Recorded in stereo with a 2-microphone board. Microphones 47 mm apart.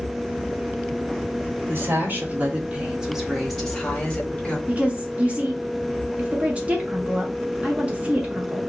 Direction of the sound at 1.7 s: 50° right (ahead or behind).